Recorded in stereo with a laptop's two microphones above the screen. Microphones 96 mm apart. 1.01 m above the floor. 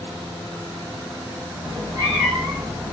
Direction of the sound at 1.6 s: 45° right (ahead or behind).